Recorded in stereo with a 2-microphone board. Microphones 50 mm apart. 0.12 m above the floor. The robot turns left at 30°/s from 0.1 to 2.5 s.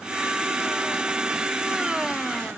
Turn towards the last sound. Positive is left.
No sound to turn to.